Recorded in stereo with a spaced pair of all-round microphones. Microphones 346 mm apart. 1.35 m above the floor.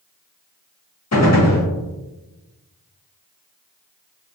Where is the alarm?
I don't hear an alarm.